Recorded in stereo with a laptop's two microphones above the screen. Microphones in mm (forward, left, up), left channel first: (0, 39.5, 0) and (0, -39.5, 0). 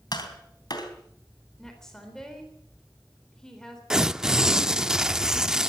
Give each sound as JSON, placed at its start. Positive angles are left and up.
{"t": 0.1, "sound": "tapping", "side_deg": 60, "distance_m": 3.5}
{"t": 1.6, "sound": "a woman speaking", "side_deg": 5, "distance_m": 3.5}
{"t": 3.9, "sound": "tearing paper", "side_deg": -10, "distance_m": 0.6}